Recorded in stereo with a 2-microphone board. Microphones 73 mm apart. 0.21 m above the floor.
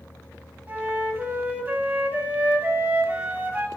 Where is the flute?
25° right (ahead or behind), 1.2 m.